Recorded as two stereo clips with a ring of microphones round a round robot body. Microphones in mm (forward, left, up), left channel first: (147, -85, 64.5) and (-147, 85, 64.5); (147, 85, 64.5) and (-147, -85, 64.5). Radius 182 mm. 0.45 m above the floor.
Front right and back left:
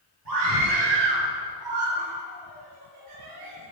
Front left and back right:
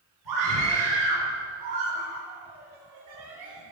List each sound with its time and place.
0.2 s a scream: straight behind, 7.5 m; by 3.7 s 165° left, 6.5 m